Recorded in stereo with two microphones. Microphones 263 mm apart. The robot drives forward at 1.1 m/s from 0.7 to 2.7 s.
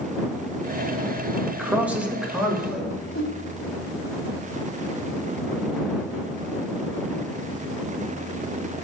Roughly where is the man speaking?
Centre.